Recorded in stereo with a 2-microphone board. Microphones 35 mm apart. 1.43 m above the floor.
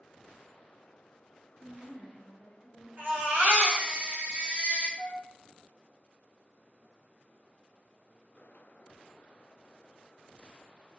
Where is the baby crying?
65° right (ahead or behind), 1.0 m.